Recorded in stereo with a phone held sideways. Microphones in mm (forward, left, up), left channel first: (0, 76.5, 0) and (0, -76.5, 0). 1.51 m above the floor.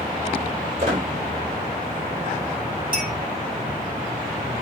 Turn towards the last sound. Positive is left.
turn(degrees=-70)  # may be behind; listen again after turning